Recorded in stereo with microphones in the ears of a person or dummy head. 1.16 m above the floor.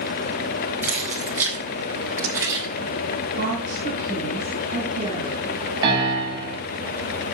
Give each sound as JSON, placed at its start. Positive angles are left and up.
{"t": 0.8, "sound": "keys jangling", "side_deg": -5, "distance_m": 4.5}
{"t": 3.4, "sound": "a woman speaking", "side_deg": -40, "distance_m": 8.0}
{"t": 5.8, "sound": "a piano", "side_deg": -25, "distance_m": 8.0}